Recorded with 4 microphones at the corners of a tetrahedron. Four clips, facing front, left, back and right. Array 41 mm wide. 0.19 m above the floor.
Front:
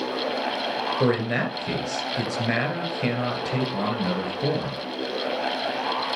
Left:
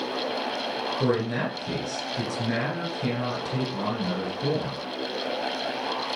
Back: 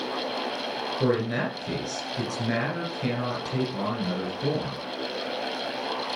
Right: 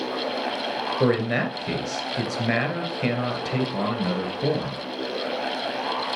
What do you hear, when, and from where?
1.0 s a man speaking: 50° right, 3 m